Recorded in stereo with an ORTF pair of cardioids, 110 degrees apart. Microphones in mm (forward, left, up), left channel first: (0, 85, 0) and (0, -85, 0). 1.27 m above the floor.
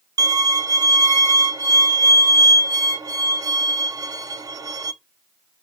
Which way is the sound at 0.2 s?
20° right.